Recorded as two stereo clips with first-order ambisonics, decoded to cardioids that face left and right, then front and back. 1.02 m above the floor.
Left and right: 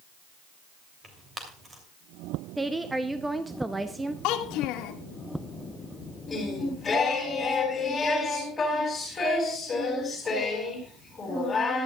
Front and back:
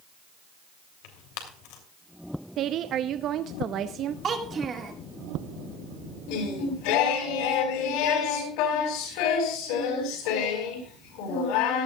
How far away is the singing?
About 4.5 m.